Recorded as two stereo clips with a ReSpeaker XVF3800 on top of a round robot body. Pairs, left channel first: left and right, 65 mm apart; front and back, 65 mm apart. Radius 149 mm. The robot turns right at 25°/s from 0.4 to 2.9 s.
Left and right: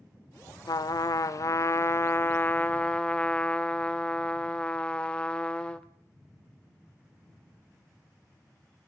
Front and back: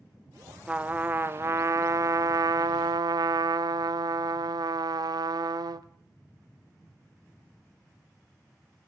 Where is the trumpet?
110° left, 0.7 m; by 5.9 s 165° left, 0.7 m.